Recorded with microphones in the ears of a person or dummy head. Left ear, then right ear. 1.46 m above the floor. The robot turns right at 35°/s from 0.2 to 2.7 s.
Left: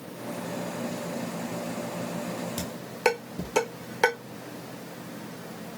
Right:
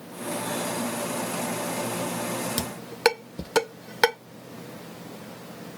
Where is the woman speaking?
No woman speaking in this recording.